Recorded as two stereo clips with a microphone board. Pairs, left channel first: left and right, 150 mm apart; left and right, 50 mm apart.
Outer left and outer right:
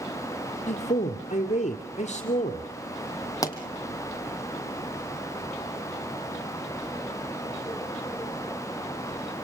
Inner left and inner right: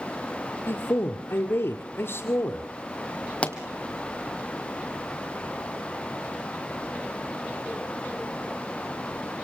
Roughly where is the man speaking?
Left.